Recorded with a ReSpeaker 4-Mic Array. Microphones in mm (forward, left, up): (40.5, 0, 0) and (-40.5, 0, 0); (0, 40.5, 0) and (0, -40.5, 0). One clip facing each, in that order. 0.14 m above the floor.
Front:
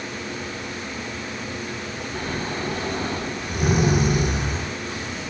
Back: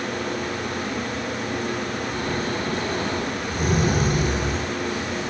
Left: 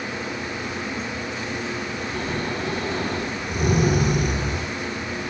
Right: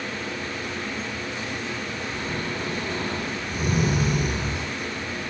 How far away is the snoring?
About 8 m.